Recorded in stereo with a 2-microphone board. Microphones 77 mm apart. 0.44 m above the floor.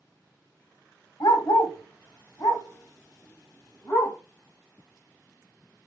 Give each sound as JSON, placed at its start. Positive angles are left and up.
{"t": 1.2, "sound": "a dog barking", "side_deg": 80, "distance_m": 1.0}